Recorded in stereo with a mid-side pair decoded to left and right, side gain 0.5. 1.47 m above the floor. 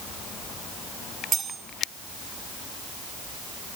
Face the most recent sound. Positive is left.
turn(degrees=-55)